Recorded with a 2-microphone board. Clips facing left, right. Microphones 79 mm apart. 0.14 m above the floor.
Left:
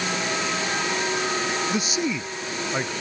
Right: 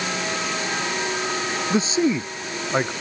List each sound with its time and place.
1.7 s a man speaking: 30° right (ahead or behind)